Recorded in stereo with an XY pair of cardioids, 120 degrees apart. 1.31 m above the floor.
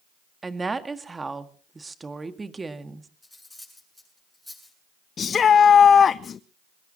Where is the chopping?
I don't hear chopping.